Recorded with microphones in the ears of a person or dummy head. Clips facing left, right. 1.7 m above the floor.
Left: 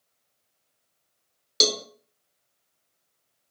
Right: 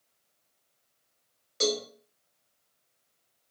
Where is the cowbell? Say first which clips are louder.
Even; 55° left (ahead or behind), 0.5 m.